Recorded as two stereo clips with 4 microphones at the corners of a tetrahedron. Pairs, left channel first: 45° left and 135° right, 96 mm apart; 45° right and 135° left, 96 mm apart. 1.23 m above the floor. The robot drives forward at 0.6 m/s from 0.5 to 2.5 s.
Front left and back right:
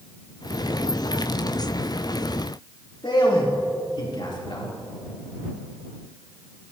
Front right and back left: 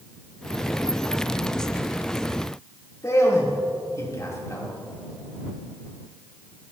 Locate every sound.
3.0 s a man speaking: 15° left, 3 m